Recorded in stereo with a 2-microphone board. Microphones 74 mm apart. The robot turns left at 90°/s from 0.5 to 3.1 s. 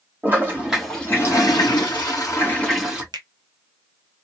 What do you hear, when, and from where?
0.2 s a toilet flushing: 155° right, 1.7 m; by 3.0 s 20° right, 1.7 m
3.1 s a finger snap: 75° right (ahead or behind), 1.0 m